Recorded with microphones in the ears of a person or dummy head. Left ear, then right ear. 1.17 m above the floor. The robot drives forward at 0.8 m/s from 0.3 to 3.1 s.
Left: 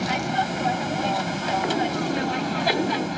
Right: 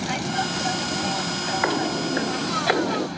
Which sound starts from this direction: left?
An aircraft, at 0.0 s.